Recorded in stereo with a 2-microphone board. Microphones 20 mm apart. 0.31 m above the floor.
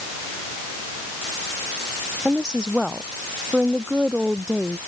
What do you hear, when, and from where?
2.2 s a woman speaking: 55° right (ahead or behind)